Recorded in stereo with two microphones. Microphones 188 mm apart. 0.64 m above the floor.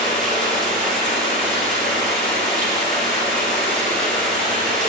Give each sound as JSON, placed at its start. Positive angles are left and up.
{"t": 0.0, "sound": "running water", "side_deg": 5, "distance_m": 2.5}